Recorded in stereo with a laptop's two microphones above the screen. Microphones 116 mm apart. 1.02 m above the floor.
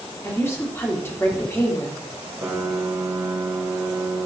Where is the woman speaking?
20° left (ahead or behind), 2 m.